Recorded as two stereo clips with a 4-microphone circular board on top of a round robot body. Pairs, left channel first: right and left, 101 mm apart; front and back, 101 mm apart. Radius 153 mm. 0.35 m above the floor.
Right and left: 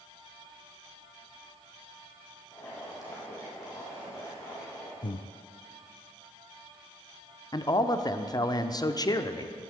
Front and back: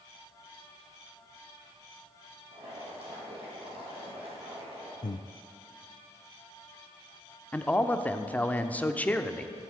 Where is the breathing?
50° right, 0.5 m.